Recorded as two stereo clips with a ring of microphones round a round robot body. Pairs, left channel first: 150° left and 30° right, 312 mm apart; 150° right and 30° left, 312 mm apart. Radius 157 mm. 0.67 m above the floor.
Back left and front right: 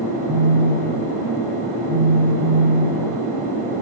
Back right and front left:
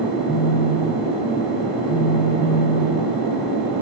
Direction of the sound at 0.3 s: 75° right.